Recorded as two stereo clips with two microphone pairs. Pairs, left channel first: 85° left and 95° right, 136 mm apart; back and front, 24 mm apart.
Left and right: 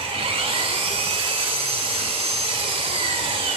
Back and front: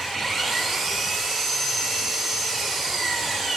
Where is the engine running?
85° right, 1.0 m.